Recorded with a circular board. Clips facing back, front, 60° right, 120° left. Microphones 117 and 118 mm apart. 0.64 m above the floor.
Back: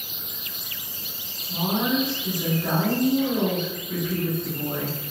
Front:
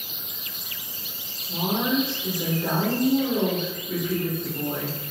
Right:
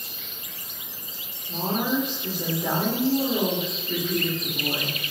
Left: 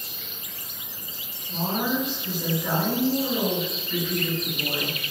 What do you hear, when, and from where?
1.5 s a woman speaking: 25° right, 1.6 m